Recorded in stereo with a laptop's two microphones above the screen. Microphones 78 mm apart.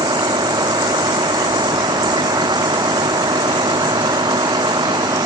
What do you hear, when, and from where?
0.0 s a vehicle: 70° right (ahead or behind)